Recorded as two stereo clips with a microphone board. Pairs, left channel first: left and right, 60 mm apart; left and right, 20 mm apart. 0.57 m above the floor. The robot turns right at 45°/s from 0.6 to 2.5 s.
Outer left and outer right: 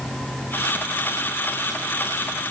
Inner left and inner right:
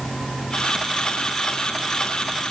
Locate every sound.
Only background noise.